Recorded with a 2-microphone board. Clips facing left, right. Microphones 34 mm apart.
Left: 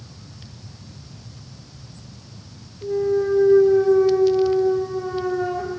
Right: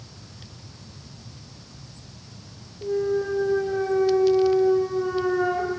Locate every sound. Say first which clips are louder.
2.8 s a clunk: left 4 dB; 40° right (ahead or behind), 1.0 m